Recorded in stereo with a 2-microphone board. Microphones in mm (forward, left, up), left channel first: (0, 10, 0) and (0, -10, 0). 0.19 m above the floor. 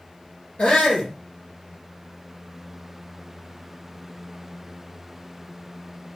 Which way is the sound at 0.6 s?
70° left (ahead or behind).